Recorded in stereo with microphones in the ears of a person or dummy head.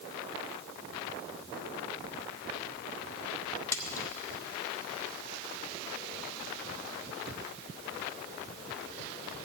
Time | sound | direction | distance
3.7 | a splash | 15° left (ahead or behind) | 0.7 m